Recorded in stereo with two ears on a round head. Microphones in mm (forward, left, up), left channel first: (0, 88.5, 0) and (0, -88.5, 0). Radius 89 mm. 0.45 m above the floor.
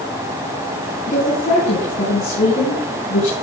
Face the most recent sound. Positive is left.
turn(degrees=40)  # may be behind; listen again after turning